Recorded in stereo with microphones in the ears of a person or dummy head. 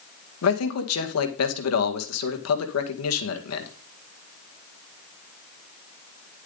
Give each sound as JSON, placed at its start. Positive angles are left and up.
{"t": 0.4, "sound": "a man speaking", "side_deg": 80, "distance_m": 1.9}